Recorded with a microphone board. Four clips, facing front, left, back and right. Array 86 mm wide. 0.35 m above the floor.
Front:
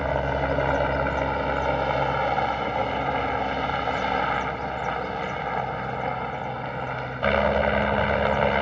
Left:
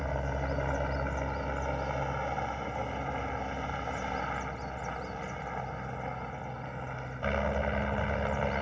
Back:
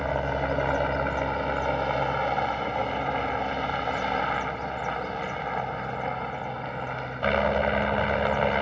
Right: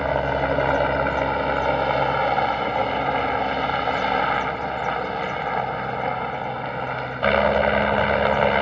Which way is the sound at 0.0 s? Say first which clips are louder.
Right 13 dB, front 2 dB; 75° right.